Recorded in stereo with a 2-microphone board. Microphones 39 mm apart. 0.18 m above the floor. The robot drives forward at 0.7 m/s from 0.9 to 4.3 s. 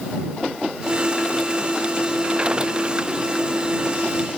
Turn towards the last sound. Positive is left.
No sound to turn to.